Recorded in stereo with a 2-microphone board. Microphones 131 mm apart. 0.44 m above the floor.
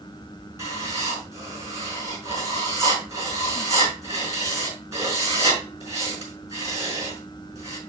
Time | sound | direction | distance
0.6 | writing | 25° right (ahead or behind) | 5 m